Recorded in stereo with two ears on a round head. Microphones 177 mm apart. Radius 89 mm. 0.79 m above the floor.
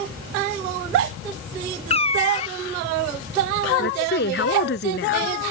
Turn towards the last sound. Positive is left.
turn(degrees=55)  # may be behind; listen again after turning